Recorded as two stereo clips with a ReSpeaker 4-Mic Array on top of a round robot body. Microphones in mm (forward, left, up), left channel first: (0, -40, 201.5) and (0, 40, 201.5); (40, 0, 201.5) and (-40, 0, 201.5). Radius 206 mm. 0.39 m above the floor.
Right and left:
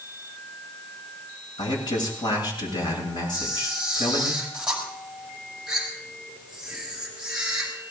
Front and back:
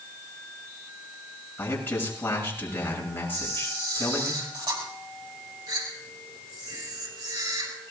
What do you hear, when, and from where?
1.6 s a man speaking: 65° right, 7 m
3.3 s a camera shutter: 170° left, 5 m